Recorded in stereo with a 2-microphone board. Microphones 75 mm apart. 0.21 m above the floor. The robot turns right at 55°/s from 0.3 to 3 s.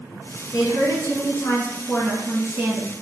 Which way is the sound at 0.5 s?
85° left.